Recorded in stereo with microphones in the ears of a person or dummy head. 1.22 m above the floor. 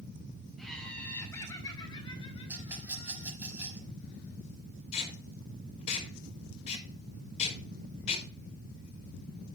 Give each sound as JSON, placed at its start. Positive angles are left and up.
{"t": 0.6, "sound": "laughter", "side_deg": 0, "distance_m": 3.0}
{"t": 2.5, "sound": "a rattle", "side_deg": -10, "distance_m": 5.5}
{"t": 4.9, "sound": "tape being pulled", "side_deg": 40, "distance_m": 4.5}